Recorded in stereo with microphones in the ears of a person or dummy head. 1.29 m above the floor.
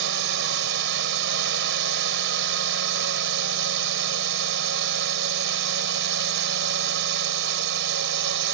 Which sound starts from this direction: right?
A drone, at 0.0 s.